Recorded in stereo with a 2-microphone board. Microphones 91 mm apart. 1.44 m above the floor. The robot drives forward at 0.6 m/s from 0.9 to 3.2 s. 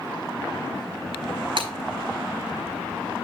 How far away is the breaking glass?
About 4.5 m.